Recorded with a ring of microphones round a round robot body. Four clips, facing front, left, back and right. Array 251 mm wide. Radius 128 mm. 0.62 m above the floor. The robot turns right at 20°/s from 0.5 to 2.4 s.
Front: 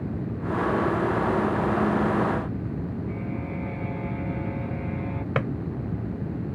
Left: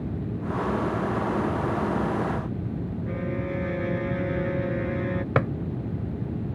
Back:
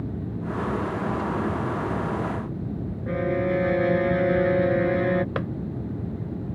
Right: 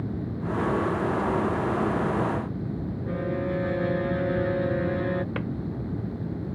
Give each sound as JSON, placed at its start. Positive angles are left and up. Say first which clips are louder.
{"t": 3.1, "sound": "a violin", "louder": "right 3 dB, back 8 dB", "azimuth_deg": -175}
{"t": 5.3, "sound": "a drawer", "louder": "left 7 dB, front 2 dB", "azimuth_deg": 85}